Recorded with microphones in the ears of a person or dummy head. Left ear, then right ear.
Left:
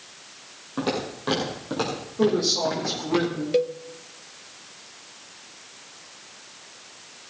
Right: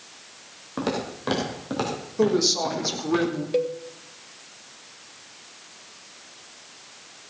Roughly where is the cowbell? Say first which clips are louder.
Left 2 dB; centre.